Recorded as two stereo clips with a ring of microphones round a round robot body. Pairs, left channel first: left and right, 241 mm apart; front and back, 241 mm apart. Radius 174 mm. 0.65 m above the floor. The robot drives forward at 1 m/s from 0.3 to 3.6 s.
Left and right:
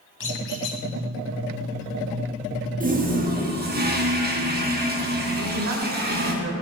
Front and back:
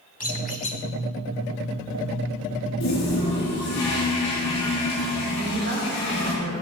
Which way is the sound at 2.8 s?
35° right.